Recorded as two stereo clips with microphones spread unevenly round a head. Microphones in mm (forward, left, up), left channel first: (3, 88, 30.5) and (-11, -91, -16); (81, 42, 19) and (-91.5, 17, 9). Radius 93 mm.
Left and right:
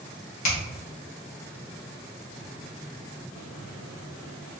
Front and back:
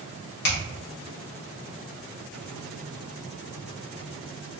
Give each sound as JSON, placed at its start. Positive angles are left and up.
{"t": 0.4, "sound": "a finger snap", "azimuth_deg": 35, "distance_m": 1.9}